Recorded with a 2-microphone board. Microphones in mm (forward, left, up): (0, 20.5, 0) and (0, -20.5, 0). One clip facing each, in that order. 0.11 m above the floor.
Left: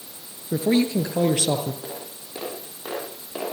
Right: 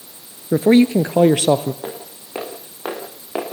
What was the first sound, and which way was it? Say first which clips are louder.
A man speaking: right 8 dB; 40° right (ahead or behind).